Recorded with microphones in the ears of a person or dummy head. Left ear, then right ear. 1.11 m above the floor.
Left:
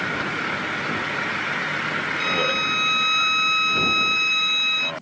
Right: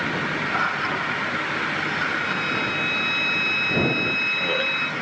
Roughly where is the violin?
Left.